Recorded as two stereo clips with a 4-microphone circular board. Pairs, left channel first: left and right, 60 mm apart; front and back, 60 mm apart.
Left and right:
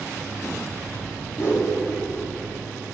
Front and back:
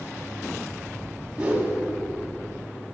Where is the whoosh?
110° left, 2.5 m.